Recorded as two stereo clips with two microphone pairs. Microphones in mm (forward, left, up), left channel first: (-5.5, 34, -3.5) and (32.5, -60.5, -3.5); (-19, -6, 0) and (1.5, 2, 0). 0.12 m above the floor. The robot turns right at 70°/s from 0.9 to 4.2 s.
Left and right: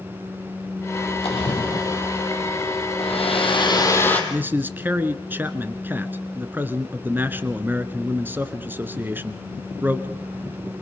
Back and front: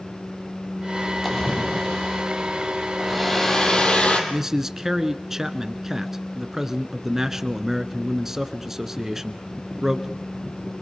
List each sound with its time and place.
1.2 s a splash: 120° left, 4 m; by 2.2 s 170° right, 4 m
3.0 s a hair dryer: 105° left, 3.5 m; by 4.2 s 170° right, 3.5 m
4.3 s a man speaking: 30° right, 1.1 m